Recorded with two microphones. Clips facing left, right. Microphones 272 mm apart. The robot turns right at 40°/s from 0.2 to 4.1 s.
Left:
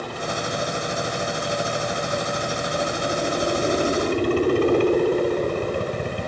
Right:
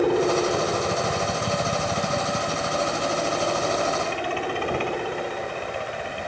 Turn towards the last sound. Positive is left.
turn(degrees=50)  # may be behind; listen again after turning